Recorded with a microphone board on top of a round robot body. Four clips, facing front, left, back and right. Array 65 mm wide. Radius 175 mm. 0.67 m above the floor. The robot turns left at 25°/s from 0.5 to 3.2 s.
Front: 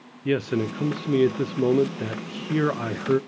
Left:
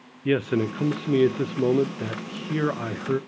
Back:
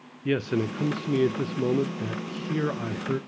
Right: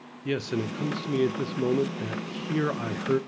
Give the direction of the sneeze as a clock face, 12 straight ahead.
I don't hear a sneeze.